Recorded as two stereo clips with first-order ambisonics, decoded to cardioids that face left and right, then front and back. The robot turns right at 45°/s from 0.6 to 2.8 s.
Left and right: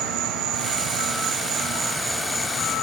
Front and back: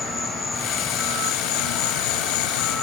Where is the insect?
75° right; by 2.8 s 20° left.